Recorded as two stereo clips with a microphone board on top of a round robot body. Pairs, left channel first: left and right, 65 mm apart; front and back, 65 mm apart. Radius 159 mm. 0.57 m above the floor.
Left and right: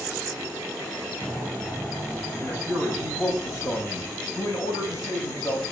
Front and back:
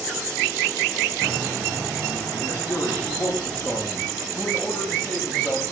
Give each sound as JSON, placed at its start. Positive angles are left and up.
{"t": 2.4, "sound": "a man speaking", "azimuth_deg": 60, "distance_m": 5.5}